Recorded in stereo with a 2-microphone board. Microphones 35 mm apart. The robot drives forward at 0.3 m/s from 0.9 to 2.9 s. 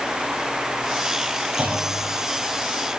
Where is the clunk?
50° right (ahead or behind), 9.5 m.